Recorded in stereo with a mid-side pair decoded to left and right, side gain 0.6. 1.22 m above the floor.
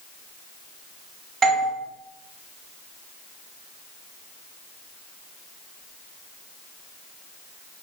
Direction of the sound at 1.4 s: 40° right.